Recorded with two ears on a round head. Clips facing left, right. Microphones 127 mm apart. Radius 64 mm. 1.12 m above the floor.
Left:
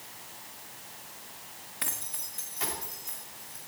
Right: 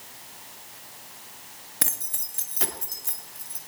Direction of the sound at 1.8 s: 45° right (ahead or behind).